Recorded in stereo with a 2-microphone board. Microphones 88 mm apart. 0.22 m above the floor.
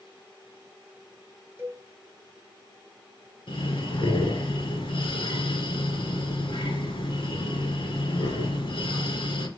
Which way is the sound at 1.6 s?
25° right (ahead or behind).